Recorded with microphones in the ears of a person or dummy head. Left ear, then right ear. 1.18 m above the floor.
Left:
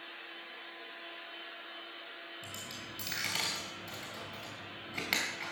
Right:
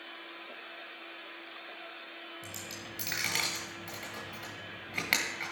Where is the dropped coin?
10° right (ahead or behind), 2.5 m.